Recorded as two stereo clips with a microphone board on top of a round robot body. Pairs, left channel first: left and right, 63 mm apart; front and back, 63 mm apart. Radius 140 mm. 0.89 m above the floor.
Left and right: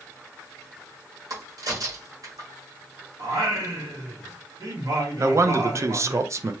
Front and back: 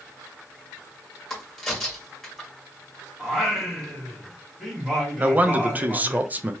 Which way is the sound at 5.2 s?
120° right.